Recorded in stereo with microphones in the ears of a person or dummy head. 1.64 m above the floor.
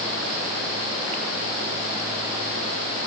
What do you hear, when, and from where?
Only background noise.